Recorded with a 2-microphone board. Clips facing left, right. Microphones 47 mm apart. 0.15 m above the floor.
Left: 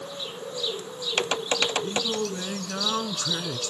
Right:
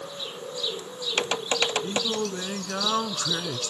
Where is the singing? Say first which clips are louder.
Even; 10° right (ahead or behind), 0.8 m.